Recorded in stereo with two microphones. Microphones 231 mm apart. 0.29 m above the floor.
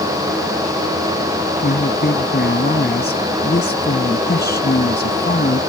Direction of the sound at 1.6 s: 40° left (ahead or behind).